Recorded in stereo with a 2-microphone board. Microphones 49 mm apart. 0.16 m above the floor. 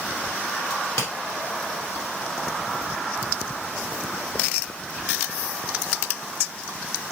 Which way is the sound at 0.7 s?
70° left (ahead or behind).